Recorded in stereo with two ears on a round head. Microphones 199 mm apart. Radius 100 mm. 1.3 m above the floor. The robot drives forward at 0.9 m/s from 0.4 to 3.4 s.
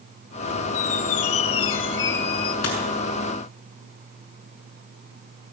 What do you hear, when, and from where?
0.7 s a squeak: 60° left (ahead or behind), 1.3 m; by 2.5 s 45° left (ahead or behind), 1.7 m
2.6 s a dropped coin: 80° left, 7 m